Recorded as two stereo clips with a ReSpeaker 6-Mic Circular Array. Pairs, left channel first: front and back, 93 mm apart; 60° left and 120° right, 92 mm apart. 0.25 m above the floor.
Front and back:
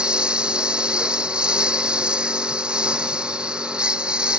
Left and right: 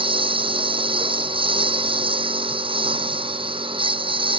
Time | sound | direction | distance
0.0 | a lawn mower | 100° right | ?